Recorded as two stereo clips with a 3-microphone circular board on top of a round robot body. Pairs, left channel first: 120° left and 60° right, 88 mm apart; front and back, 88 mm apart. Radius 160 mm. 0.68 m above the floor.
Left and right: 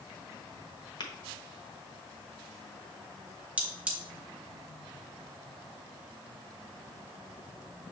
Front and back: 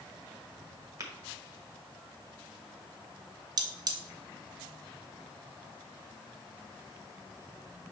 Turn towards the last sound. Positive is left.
turn(degrees=-140)